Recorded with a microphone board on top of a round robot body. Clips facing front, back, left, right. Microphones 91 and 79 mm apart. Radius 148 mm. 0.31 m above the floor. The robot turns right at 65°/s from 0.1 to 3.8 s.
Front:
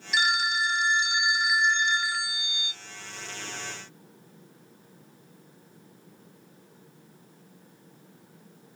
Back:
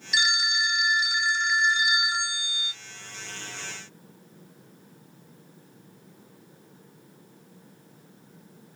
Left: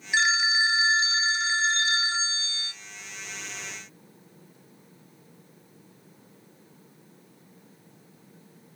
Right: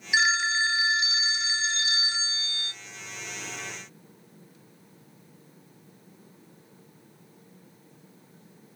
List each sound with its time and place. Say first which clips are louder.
0.1 s a phone ringing: front 1 dB, even; 10° right; by 2.8 s 160° left